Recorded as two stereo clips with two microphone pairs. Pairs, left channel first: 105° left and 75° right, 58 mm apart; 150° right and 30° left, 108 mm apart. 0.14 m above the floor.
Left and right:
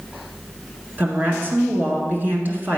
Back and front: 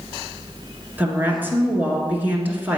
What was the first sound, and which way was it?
A woman speaking, 35° right.